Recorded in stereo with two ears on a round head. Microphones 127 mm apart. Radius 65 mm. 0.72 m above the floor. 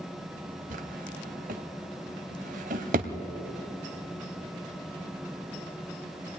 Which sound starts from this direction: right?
A drawer, at 0.7 s.